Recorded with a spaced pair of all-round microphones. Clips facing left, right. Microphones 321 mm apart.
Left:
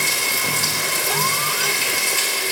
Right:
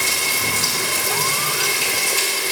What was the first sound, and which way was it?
Running water, 45° right (ahead or behind).